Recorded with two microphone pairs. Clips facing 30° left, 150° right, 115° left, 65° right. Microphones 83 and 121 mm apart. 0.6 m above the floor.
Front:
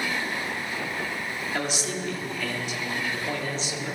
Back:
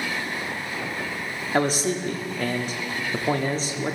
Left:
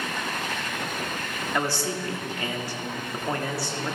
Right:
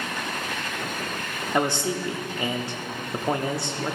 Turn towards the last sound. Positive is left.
turn(degrees=-125)